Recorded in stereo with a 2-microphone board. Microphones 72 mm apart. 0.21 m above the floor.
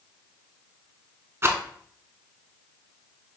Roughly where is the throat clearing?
I don't hear throat clearing.